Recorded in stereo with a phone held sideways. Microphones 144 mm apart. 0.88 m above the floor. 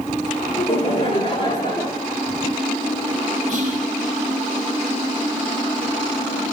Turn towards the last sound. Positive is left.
turn(degrees=-55)  # may be behind; listen again after turning